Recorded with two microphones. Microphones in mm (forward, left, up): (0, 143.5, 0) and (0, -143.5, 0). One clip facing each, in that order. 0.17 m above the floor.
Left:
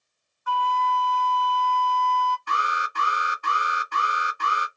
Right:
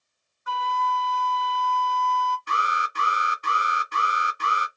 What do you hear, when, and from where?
0.5 s a flute: 25° right (ahead or behind), 0.8 m
2.5 s an alarm: 20° right (ahead or behind), 1.7 m